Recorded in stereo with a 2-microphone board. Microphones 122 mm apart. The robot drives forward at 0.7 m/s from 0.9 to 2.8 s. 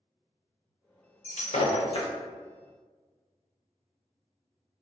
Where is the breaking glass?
70° left (ahead or behind), 0.6 m; by 2.1 s 45° left (ahead or behind), 0.9 m.